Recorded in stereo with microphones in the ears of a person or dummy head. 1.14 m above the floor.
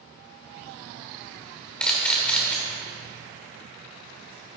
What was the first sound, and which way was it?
A camera shutter, 5° left (ahead or behind).